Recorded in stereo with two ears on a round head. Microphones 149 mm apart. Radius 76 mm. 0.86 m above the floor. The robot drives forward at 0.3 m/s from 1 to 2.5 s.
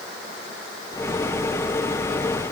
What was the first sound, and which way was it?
Only background noise.